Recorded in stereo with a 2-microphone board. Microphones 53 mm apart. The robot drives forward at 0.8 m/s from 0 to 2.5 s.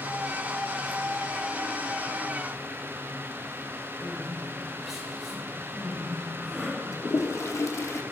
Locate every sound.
4.0 s crying: 5° right (ahead or behind), 6 m
6.9 s a toilet flushing: 70° left (ahead or behind), 1.1 m